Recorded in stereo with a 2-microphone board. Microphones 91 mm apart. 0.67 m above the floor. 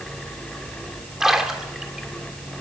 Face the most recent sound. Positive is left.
turn(degrees=-5)  # may be behind; listen again after turning